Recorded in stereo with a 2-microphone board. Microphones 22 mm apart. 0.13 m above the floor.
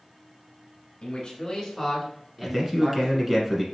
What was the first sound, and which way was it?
A man speaking, 35° left (ahead or behind).